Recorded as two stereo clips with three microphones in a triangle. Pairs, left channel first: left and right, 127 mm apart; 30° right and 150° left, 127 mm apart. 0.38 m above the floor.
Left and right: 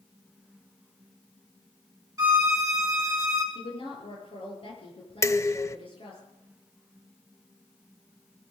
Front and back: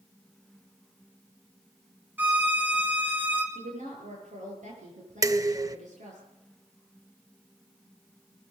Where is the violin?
140° right, 2 m.